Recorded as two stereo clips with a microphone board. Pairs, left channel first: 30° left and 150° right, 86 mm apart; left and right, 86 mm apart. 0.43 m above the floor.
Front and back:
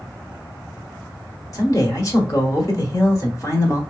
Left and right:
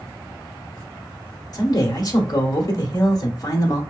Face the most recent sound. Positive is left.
turn(degrees=65)